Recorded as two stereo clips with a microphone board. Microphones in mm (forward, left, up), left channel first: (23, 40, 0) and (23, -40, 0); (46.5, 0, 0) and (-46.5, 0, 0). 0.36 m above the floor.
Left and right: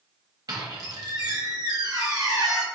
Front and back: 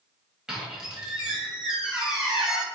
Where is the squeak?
100° right, 1.3 m.